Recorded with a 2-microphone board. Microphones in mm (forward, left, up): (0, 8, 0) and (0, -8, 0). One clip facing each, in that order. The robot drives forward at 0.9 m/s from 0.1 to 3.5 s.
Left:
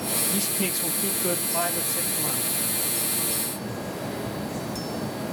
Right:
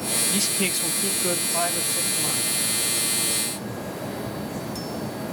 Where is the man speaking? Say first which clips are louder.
Right 3 dB; 40° right (ahead or behind), 0.6 m; by 2.6 s 10° right (ahead or behind), 2.5 m.